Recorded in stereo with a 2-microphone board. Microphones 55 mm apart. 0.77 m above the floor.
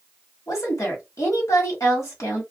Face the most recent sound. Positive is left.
turn(degrees=65)  # may be behind; listen again after turning